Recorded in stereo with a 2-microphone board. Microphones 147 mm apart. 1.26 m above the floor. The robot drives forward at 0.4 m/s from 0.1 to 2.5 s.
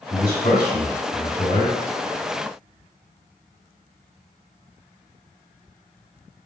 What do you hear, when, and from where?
0.1 s a man speaking: 70° left (ahead or behind), 1.9 m; by 1.8 s 85° left, 1.8 m